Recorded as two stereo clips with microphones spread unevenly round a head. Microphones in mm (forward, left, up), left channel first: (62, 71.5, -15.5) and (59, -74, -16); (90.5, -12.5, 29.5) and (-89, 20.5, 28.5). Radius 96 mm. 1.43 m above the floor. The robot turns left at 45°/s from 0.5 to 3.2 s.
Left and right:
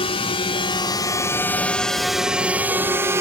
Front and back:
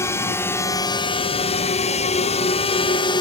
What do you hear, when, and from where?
0.0 s a drone: 60° left; by 3.2 s 40° right